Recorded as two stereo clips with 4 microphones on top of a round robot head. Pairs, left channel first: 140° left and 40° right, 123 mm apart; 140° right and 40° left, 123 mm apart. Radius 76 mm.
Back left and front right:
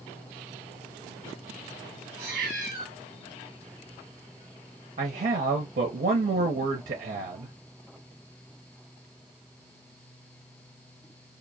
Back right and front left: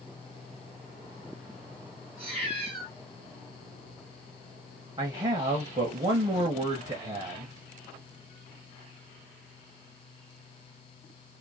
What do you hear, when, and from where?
2.2 s a cat meowing: 65° right, 2 m
5.0 s a man speaking: 20° right, 0.6 m